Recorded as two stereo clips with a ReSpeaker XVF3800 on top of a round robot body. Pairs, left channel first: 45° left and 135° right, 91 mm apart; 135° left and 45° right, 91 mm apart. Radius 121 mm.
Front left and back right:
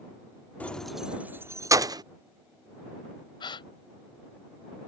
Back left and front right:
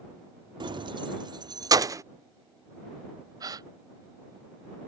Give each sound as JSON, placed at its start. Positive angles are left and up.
{"t": 0.6, "sound": "keys jangling", "azimuth_deg": -30}
{"t": 3.4, "sound": "a gasp", "azimuth_deg": 5}